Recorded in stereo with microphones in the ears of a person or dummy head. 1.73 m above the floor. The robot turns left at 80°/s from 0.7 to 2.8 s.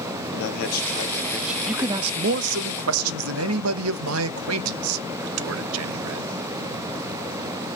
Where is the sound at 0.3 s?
55° left, 1.5 m; by 1.6 s 15° right, 1.5 m.